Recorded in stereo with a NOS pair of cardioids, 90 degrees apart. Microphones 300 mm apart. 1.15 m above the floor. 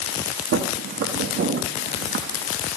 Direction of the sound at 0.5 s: 50° right.